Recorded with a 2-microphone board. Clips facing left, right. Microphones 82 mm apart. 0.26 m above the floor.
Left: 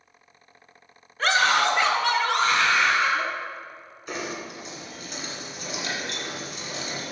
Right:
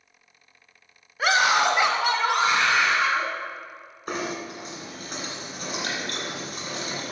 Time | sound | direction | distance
1.2 | a scream | 10° right (ahead or behind) | 1.2 m
4.1 | knocking | 45° right (ahead or behind) | 2 m